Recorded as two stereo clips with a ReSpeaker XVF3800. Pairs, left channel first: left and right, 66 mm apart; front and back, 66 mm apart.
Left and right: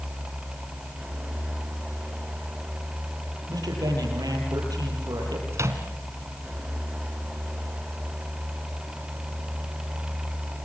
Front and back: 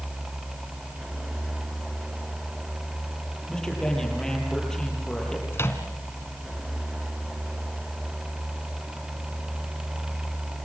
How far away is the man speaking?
About 8.5 m.